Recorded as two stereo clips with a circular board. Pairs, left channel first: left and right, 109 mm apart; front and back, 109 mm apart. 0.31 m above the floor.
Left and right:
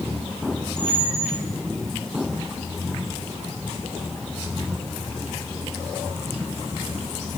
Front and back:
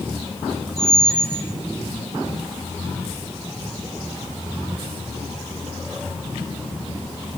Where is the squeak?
90° left, 4.5 m.